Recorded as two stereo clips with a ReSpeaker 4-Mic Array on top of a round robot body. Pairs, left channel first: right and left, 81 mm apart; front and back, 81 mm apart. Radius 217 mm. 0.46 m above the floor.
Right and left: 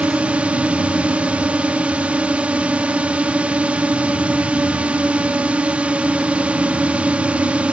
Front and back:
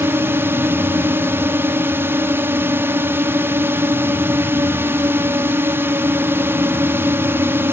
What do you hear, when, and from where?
0.0 s a drone: 150° left